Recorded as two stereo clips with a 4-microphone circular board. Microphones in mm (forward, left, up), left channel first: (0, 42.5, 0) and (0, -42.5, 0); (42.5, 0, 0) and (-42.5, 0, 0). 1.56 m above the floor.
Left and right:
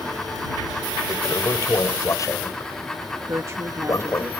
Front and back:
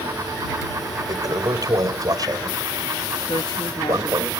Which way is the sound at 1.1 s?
140° left.